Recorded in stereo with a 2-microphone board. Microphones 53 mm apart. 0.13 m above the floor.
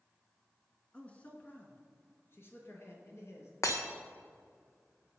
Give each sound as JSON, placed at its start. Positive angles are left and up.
{"t": 0.9, "sound": "a man speaking", "side_deg": 20, "distance_m": 1.4}
{"t": 3.6, "sound": "breaking glass", "side_deg": 75, "distance_m": 1.6}